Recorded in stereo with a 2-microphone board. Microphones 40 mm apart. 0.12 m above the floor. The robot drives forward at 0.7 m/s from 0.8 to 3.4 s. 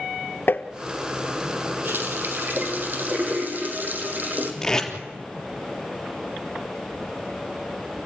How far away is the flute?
I don't hear a flute.